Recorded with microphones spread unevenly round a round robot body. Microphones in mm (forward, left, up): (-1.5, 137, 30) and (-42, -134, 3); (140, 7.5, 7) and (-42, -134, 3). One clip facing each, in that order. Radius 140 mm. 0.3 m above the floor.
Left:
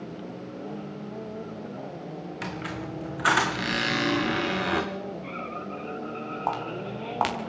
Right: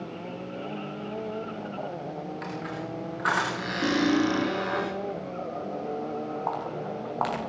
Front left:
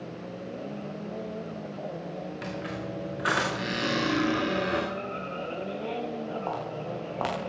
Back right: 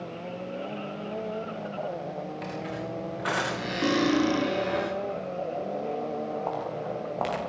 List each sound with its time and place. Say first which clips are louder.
2.4 s a squeak: even, even; 120° left, 5 m
3.8 s cutlery clinking: right 6 dB, back right 4 dB; 90° right, 5 m
6.5 s footsteps: even, back right 2 dB; 120° left, 8.5 m